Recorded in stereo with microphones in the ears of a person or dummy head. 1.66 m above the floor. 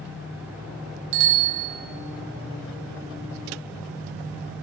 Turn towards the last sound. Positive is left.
turn(degrees=-70)  # may be behind; listen again after turning